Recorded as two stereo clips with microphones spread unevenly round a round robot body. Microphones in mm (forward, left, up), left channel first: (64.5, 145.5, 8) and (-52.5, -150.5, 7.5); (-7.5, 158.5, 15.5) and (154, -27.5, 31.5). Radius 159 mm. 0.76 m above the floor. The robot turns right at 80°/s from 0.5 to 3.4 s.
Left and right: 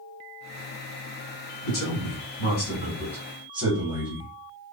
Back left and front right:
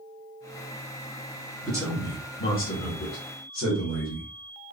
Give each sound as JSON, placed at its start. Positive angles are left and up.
{"t": 1.6, "sound": "a man speaking", "azimuth_deg": 30, "distance_m": 2.0}